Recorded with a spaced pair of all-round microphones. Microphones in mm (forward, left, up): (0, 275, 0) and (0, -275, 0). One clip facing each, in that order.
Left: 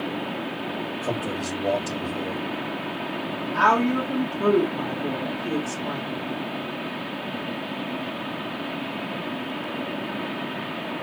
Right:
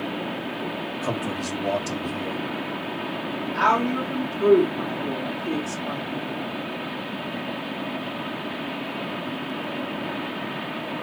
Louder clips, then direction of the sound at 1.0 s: Right 1 dB; 25° right (ahead or behind).